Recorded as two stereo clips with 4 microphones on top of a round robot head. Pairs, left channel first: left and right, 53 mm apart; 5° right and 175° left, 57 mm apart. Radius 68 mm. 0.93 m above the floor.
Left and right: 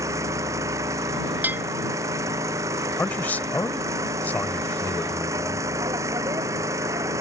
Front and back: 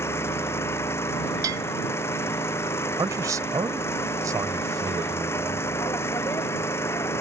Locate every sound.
0.0 s an engine running: 55° right
1.4 s a bell: 145° right
3.0 s a man speaking: 150° left